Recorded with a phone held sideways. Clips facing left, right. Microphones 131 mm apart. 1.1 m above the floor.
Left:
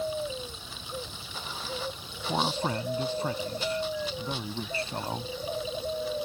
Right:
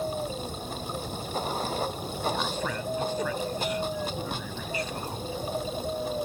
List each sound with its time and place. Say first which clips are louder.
0.0 s running water: right 1 dB; 50° right (ahead or behind)
2.3 s a man speaking: left 5 dB; 30° left (ahead or behind)